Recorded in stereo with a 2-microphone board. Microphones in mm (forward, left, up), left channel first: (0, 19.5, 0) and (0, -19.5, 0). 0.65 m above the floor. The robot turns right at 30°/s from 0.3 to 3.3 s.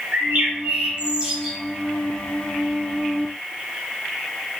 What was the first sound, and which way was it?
A bird, 45° right.